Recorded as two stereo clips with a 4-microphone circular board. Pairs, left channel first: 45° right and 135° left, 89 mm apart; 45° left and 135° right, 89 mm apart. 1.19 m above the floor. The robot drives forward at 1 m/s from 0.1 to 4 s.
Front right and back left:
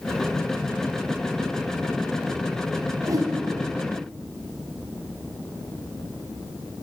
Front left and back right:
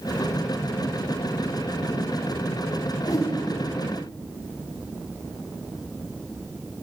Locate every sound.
3.0 s a whoosh: 80° left, 0.7 m; by 3.3 s 105° left, 0.7 m